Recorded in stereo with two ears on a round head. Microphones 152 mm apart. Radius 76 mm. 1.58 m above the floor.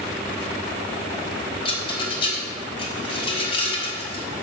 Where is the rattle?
30° left (ahead or behind), 1.2 m.